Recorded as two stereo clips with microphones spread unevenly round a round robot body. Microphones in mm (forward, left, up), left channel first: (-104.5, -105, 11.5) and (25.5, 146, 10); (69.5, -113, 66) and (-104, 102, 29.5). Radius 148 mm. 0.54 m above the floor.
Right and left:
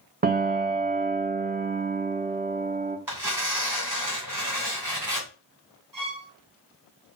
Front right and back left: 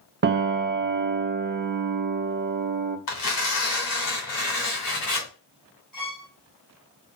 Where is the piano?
110° left, 0.7 m.